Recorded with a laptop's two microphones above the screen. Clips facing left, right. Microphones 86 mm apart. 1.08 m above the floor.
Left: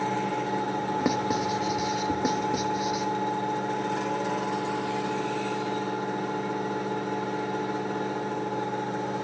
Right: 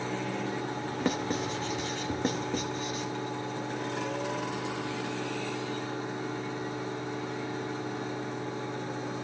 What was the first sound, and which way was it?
A fan, 70° left (ahead or behind).